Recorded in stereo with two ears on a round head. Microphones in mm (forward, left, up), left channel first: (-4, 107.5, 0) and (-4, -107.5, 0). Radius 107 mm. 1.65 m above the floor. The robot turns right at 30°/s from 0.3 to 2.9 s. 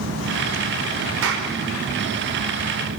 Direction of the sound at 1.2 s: 60° right (ahead or behind).